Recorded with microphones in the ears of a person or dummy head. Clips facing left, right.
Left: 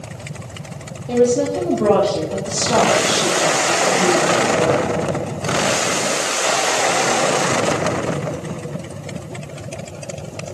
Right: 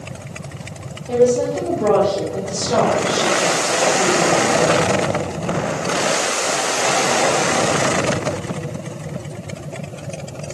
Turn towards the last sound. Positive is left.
turn(degrees=60)  # may be behind; listen again after turning